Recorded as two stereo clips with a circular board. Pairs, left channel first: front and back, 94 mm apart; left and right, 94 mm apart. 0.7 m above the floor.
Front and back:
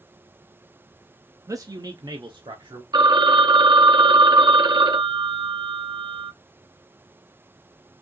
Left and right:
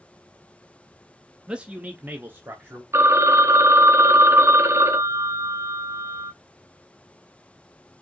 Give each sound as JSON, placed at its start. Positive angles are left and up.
{"t": 1.5, "sound": "a man speaking", "azimuth_deg": -165, "distance_m": 0.6}
{"t": 2.9, "sound": "a phone ringing", "azimuth_deg": -150, "distance_m": 0.6}